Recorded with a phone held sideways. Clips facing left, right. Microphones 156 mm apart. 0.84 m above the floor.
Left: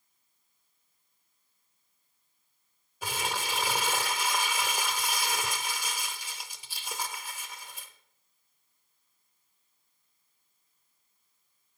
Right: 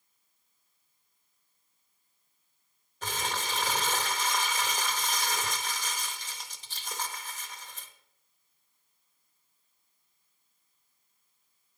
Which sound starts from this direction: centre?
Crumpling, at 3.0 s.